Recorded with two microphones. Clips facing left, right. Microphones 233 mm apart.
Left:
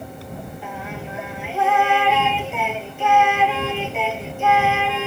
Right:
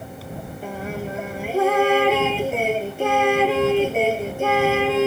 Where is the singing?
40° right (ahead or behind).